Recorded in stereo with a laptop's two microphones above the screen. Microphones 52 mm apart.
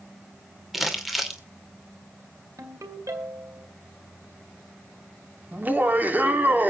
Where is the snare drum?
No snare drum in this recording.